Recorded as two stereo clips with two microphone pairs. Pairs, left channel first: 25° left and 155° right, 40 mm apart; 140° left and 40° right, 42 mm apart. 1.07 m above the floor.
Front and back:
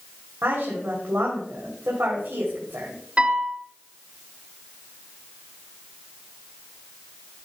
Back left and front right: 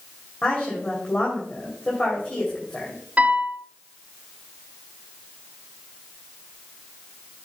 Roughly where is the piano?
Right.